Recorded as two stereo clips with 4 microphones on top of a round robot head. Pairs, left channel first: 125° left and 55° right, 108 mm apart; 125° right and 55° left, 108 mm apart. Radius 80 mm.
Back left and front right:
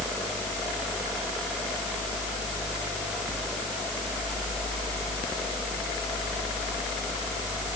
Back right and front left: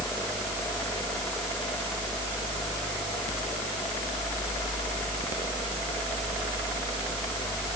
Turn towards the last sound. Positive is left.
No sound to turn to.